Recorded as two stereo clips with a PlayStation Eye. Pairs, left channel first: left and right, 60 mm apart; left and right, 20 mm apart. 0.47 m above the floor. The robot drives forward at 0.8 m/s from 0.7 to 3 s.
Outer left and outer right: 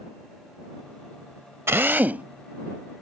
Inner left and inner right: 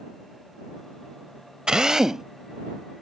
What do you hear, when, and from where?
1.7 s a drill: 45° right (ahead or behind); by 2.2 s 25° right (ahead or behind)